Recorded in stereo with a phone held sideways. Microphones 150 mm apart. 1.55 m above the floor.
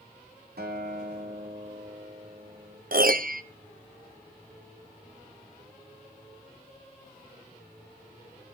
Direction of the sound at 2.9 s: 65° right (ahead or behind).